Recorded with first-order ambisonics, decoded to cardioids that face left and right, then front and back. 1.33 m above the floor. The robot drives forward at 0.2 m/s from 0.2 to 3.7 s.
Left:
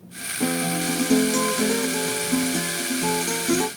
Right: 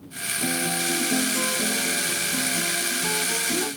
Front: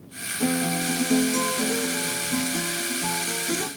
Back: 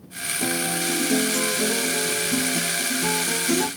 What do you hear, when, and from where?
0.4 s a guitar: 65° left, 1.0 m; by 3.7 s 110° left, 0.9 m